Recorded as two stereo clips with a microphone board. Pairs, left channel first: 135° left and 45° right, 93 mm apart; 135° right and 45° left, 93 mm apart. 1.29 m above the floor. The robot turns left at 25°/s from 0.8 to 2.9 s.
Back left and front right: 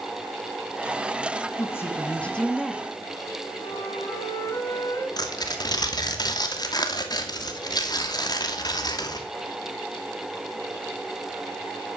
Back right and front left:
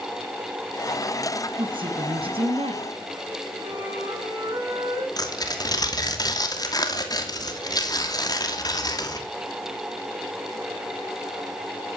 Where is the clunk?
I don't hear a clunk.